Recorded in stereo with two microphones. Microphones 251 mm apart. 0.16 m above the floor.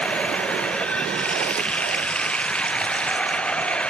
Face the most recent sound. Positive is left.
turn(degrees=5)  # may be behind; listen again after turning